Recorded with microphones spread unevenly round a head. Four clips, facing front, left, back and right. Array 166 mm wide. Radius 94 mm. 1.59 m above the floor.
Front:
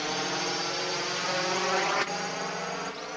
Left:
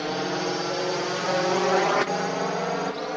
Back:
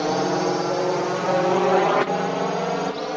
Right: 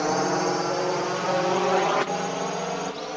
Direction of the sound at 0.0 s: 170° right.